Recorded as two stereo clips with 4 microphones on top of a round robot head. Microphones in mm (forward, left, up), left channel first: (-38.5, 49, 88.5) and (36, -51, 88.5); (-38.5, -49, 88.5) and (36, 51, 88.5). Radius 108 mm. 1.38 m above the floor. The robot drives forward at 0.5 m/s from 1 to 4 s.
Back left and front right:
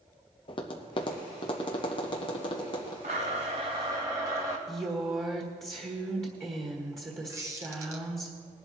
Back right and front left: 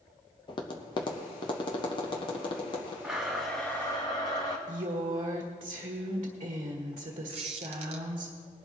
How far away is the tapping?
About 0.8 m.